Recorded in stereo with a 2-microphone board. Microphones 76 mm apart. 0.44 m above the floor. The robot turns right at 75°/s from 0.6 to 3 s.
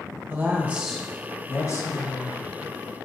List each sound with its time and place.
0.3 s a woman speaking: 30° right, 1.7 m; by 2.4 s 105° left, 1.7 m